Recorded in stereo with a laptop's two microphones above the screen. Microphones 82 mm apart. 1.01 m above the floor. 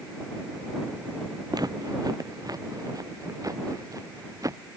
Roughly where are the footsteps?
Right.